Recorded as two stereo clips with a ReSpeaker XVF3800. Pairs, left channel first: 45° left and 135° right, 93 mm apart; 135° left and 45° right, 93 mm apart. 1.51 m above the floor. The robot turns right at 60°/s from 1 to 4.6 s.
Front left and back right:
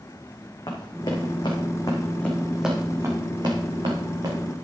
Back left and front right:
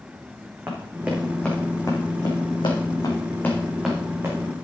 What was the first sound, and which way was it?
Running footsteps, 20° left.